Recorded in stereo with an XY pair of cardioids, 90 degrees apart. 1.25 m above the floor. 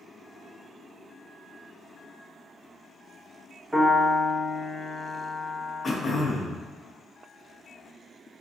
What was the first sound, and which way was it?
A piano, 20° right.